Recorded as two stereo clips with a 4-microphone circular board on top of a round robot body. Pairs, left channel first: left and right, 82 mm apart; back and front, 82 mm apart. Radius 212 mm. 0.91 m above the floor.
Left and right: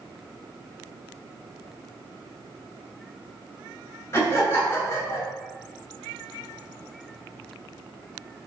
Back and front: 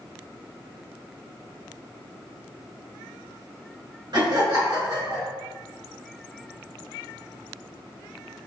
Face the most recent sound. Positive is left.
turn(degrees=30)